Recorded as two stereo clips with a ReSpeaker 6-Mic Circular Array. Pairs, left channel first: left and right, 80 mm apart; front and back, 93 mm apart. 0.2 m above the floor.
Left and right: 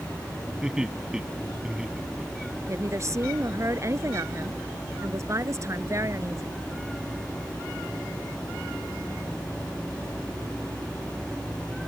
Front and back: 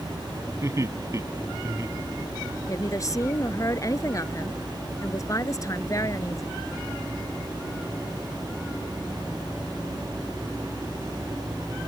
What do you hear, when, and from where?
0.6 s laughter: 165° right
2.7 s a woman speaking: 45° right